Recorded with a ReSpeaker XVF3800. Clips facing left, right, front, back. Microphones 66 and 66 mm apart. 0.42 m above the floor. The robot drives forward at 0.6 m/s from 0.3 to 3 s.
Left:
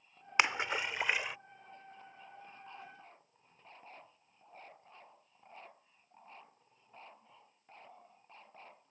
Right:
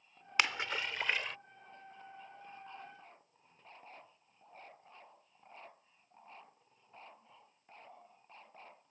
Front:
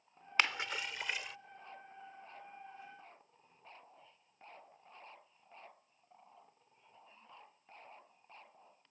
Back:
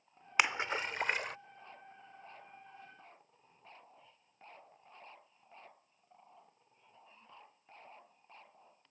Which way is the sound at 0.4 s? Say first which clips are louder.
Left 3 dB, back 3 dB; 125° left.